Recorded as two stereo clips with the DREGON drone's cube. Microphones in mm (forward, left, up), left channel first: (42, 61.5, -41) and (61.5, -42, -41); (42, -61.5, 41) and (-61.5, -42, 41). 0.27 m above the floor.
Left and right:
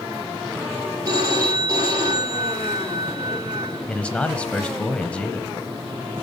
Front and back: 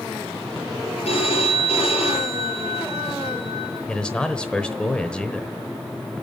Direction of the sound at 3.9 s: 50° left.